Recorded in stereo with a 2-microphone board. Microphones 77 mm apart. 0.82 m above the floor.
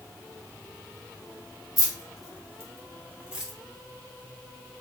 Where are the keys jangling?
60° right (ahead or behind), 1.0 m; by 3.5 s 10° right (ahead or behind), 0.9 m.